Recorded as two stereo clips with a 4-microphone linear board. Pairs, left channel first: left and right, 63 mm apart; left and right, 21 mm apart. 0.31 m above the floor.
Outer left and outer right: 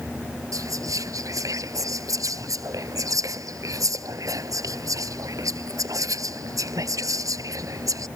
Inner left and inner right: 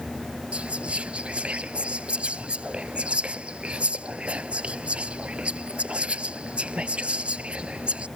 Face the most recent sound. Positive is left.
turn(degrees=-65)  # may be behind; listen again after turning